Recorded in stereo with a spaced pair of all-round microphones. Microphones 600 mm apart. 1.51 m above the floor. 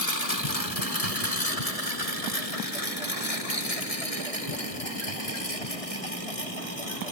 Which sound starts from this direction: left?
A lawn mower, at 0.0 s.